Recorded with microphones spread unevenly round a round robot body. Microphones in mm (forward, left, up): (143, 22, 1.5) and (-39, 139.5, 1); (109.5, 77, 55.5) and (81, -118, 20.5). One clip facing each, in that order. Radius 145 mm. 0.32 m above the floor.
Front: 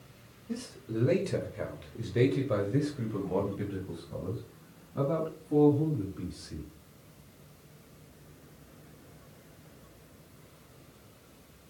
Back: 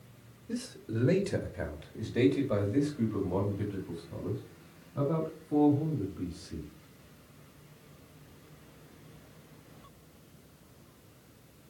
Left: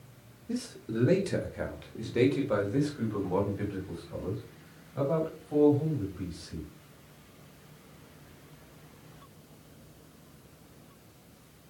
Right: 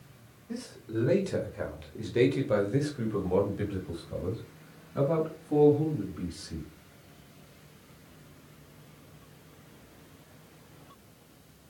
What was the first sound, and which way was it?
A man speaking, 100° left.